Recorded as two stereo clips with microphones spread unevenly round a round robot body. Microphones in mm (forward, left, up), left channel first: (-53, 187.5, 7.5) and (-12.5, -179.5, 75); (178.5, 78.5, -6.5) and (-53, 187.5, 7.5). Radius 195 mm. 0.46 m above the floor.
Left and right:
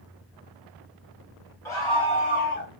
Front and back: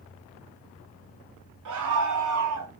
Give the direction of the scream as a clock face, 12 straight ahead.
6 o'clock.